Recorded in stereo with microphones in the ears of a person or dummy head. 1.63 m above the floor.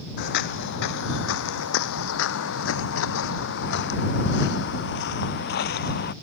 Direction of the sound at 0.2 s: 55° left (ahead or behind).